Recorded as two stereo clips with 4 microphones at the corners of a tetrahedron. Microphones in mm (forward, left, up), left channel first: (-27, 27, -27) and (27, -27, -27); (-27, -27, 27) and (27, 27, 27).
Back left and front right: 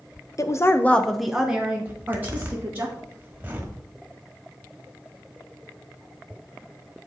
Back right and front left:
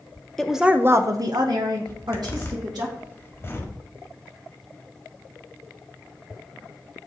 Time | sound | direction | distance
0.4 | a woman speaking | 145° left | 0.7 m
1.9 | a zipper | 100° right | 1.3 m